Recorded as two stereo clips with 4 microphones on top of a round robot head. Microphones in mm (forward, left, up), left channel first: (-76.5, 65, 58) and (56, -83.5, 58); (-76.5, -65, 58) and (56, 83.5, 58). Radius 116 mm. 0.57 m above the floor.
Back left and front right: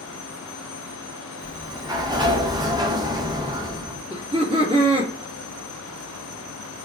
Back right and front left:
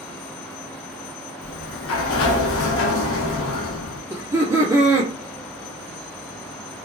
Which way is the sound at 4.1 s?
15° right.